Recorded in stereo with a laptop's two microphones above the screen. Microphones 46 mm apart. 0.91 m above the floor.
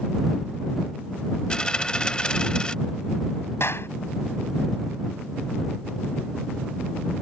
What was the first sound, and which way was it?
A dropped coin, 20° left (ahead or behind).